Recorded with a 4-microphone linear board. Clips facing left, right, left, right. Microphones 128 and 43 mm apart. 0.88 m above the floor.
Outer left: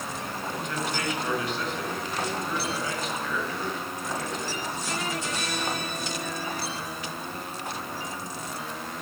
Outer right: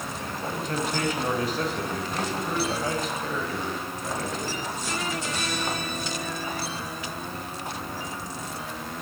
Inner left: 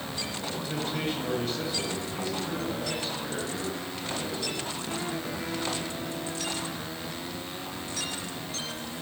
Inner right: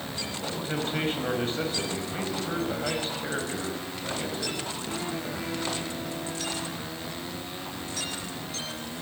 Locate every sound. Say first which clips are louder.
0.4 s a man speaking: outer right 4 dB, inner right 3 dB; 40° right (ahead or behind), 6 m